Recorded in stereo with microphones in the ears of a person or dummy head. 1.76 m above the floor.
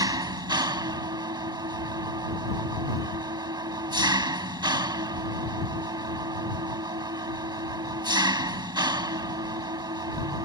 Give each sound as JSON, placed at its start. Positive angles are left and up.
{"t": 0.0, "sound": "an engine running", "side_deg": -30}